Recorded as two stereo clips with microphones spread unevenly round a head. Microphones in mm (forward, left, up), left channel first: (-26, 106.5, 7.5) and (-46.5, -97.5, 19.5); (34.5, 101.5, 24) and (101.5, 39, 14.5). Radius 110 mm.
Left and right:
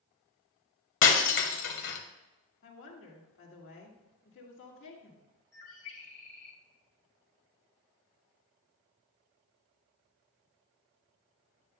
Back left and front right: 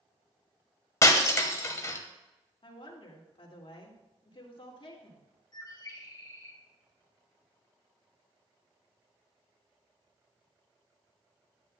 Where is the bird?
95° left, 3 m.